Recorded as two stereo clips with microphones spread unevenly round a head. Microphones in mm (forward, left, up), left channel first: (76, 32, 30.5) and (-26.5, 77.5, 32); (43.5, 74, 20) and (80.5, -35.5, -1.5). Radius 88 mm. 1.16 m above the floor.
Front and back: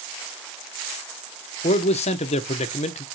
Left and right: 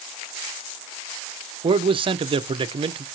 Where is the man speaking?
40° right, 0.5 m.